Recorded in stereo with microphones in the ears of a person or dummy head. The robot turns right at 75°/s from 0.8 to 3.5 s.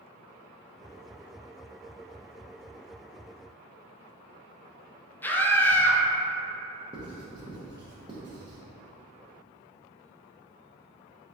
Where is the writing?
25° right (ahead or behind), 0.8 m.